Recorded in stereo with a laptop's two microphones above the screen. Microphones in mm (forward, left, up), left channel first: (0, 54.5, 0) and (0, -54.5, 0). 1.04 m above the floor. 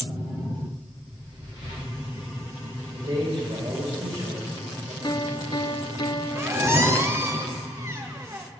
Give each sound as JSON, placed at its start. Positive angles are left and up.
{"t": 2.9, "sound": "a man speaking", "side_deg": -60, "distance_m": 5.5}
{"t": 5.0, "sound": "a piano", "side_deg": 40, "distance_m": 0.7}
{"t": 6.3, "sound": "a squeak", "side_deg": -25, "distance_m": 1.0}